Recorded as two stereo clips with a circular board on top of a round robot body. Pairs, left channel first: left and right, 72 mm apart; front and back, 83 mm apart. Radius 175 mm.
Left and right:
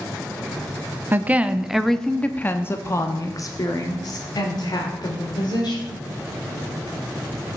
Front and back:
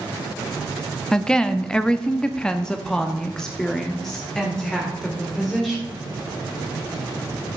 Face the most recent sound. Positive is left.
turn(degrees=85)